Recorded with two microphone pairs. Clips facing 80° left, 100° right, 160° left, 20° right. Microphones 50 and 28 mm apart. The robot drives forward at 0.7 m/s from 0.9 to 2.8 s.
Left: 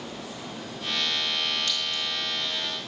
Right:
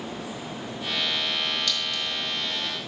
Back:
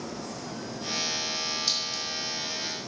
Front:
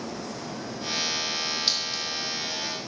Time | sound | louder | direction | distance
1.7 | a clink | right 1 dB, front 3 dB | 30° left | 2 m